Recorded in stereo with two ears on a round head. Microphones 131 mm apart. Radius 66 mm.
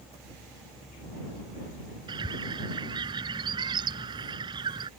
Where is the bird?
30° right (ahead or behind).